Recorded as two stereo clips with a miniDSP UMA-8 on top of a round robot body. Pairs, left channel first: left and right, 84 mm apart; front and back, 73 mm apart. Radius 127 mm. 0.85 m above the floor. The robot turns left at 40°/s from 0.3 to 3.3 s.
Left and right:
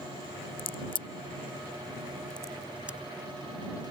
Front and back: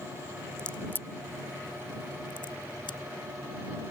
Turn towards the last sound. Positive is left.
turn(degrees=-30)